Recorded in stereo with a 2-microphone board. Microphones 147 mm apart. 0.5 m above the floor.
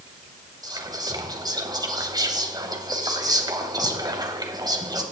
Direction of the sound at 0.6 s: 30° right (ahead or behind).